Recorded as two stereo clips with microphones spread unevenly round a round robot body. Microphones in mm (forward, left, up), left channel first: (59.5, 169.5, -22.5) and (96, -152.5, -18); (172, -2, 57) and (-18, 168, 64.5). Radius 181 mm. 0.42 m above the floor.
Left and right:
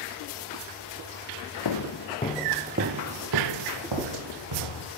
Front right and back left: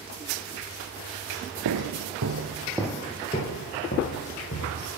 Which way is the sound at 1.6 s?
130° left.